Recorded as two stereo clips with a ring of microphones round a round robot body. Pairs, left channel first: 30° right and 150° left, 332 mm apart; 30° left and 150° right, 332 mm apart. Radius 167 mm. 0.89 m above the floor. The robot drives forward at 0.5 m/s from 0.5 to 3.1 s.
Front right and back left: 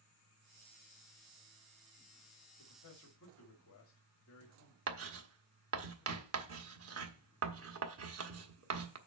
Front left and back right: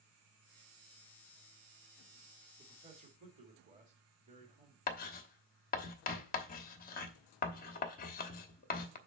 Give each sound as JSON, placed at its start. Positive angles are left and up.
{"t": 2.6, "sound": "a man speaking", "azimuth_deg": -75, "distance_m": 2.0}
{"t": 4.9, "sound": "writing", "azimuth_deg": 95, "distance_m": 1.1}